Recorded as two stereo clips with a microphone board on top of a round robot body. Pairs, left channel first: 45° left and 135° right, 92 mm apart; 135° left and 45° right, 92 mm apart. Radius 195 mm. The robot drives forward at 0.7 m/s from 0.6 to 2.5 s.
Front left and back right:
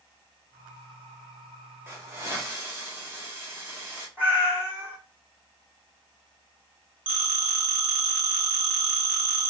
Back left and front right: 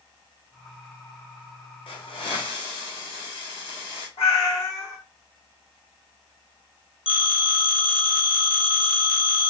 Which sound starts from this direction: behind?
A hiss, at 1.9 s.